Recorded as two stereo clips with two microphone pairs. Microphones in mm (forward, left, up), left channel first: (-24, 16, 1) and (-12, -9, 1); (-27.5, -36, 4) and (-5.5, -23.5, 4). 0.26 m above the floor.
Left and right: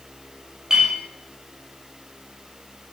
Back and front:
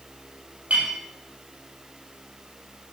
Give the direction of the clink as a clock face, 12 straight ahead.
12 o'clock.